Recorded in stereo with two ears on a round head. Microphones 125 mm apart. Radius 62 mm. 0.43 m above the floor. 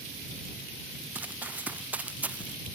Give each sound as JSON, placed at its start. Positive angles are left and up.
{"t": 1.1, "sound": "running footsteps", "side_deg": -10}